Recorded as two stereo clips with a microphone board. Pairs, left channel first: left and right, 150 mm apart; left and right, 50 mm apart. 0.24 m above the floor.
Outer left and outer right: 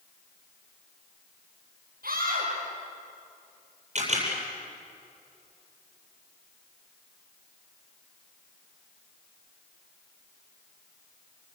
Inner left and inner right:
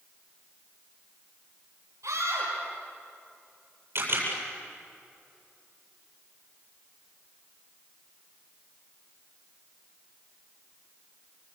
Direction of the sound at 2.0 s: 80° right.